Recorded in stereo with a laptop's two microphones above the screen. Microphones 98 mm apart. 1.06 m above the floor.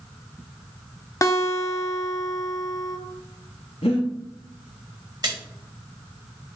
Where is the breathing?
75° left (ahead or behind), 0.9 m.